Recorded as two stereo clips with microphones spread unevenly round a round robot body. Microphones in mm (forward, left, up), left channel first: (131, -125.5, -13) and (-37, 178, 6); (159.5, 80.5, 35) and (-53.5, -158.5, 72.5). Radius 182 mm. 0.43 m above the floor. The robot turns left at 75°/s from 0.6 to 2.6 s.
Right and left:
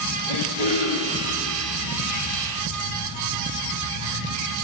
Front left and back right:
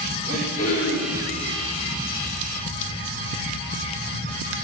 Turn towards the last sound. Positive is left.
turn(degrees=-20)